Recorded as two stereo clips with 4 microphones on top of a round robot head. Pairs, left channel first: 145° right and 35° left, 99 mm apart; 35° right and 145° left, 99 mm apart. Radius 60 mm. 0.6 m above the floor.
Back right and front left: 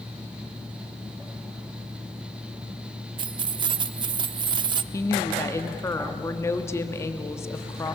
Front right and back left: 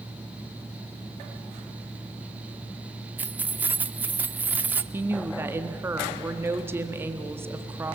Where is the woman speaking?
175° right, 1.3 m.